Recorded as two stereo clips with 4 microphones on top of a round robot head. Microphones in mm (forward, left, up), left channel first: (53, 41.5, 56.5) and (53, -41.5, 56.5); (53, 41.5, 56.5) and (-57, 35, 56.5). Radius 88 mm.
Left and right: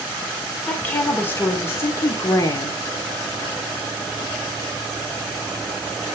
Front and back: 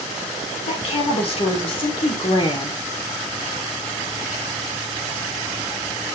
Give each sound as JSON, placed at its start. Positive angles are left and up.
{"t": 0.7, "sound": "a woman speaking", "azimuth_deg": 20, "distance_m": 3.0}